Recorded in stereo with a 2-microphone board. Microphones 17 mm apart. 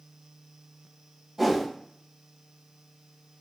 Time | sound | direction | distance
1.4 | a whoosh | 30° right (ahead or behind) | 1.1 m